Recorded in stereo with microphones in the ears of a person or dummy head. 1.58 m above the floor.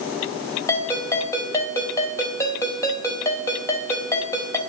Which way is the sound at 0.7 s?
15° left (ahead or behind).